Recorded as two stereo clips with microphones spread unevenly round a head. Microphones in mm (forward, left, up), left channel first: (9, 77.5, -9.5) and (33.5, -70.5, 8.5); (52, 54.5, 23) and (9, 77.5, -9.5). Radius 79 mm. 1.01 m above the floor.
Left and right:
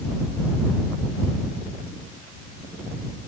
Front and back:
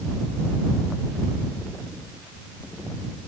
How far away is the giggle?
No giggle in this recording.